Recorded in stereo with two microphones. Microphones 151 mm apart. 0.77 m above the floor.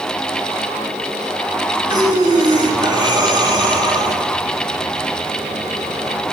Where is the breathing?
25° right (ahead or behind), 1.2 m.